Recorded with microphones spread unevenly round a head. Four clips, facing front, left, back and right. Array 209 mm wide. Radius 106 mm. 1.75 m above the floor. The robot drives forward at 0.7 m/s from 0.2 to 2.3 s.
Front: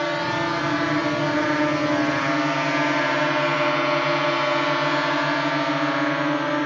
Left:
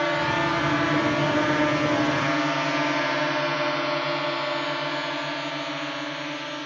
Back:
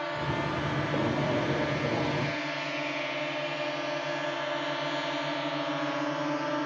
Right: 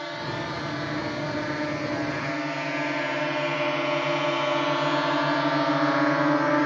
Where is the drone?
45° left; by 6.7 s 60° right.